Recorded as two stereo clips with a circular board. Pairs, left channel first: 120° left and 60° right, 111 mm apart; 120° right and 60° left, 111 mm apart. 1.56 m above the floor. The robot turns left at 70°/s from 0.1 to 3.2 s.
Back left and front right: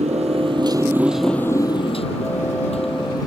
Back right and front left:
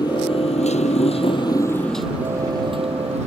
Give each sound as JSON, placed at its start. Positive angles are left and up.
{"t": 0.0, "sound": "a motorcycle", "azimuth_deg": -70}